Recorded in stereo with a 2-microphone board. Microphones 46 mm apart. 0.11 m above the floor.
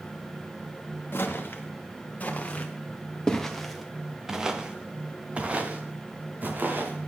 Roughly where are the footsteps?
Left.